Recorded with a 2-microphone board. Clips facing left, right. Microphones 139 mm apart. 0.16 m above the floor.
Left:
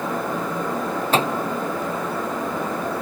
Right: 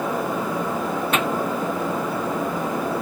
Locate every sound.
1.1 s a microwave: 30° left (ahead or behind)